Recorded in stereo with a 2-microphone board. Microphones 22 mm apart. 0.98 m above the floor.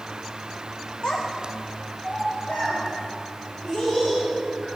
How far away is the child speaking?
About 0.9 m.